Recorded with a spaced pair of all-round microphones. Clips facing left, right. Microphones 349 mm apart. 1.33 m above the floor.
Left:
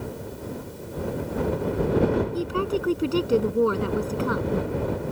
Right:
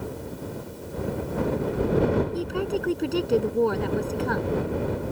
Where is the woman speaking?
10° left (ahead or behind).